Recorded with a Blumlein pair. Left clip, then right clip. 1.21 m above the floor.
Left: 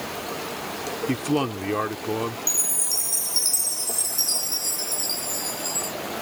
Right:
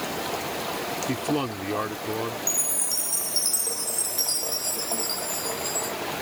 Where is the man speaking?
10° left.